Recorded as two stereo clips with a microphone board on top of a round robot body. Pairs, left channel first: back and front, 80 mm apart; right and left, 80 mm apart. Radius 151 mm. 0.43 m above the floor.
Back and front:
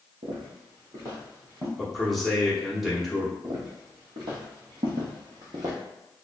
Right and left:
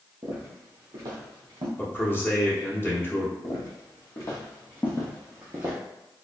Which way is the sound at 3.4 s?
45° right.